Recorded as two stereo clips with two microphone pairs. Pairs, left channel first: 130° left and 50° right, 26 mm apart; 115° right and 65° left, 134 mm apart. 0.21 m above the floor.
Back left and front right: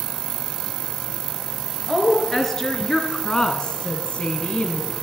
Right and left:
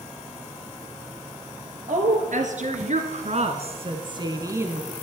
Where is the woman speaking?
55° left, 3 m; by 4.9 s 140° left, 1.8 m.